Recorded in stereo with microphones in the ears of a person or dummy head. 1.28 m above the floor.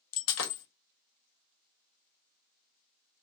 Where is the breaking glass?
65° left (ahead or behind), 1.0 m.